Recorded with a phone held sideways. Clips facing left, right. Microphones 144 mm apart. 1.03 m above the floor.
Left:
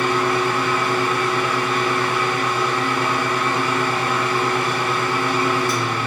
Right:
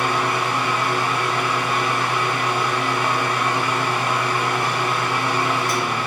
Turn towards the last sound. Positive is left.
turn(degrees=-15)  # may be behind; listen again after turning